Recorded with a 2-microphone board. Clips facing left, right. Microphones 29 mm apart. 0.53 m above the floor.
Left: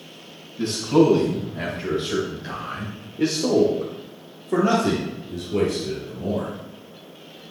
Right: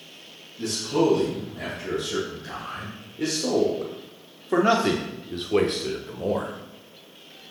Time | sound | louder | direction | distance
0.6 | a man speaking | left 5 dB | 35° left (ahead or behind) | 3 m